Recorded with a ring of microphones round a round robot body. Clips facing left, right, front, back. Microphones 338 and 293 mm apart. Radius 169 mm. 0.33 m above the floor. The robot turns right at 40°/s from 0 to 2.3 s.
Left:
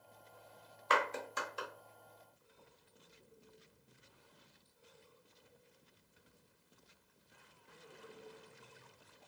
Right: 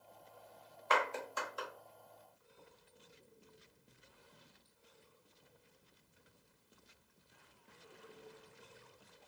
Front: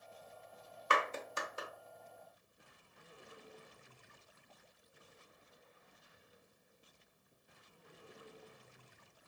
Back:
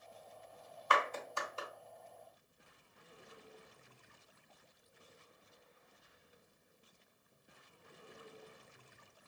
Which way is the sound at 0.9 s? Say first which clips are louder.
Even, even; 35° left.